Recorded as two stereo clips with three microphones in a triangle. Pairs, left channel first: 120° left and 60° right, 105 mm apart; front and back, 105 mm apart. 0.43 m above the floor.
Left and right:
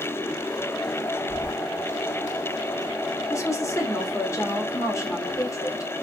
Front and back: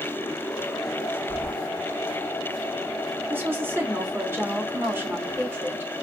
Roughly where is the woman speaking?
Behind left.